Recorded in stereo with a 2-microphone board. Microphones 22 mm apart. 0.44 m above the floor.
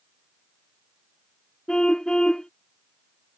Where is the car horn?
35° left (ahead or behind).